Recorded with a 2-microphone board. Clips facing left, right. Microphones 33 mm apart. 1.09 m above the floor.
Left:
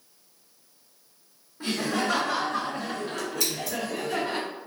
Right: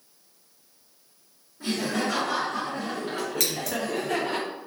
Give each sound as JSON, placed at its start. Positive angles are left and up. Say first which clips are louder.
{"t": 1.6, "sound": "laughter", "louder": "even", "side_deg": 45, "distance_m": 1.0}
{"t": 3.4, "sound": "scissors", "louder": "right 1 dB", "side_deg": -70, "distance_m": 0.8}